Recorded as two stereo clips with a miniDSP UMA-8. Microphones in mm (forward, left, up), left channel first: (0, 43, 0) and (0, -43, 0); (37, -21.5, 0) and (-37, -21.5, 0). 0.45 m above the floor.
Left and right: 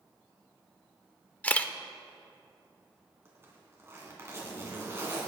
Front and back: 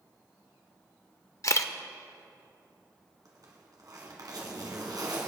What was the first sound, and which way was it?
A camera shutter, 25° left.